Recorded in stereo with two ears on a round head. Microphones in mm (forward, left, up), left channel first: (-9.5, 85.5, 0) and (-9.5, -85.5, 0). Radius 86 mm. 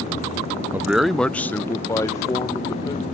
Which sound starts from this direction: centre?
A man speaking, at 0.7 s.